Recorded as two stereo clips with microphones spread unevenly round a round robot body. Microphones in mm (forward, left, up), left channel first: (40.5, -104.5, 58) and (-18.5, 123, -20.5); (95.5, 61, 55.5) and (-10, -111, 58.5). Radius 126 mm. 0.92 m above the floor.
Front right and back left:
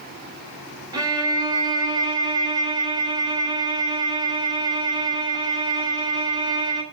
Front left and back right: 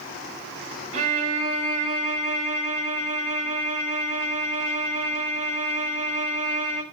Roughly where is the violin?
Behind.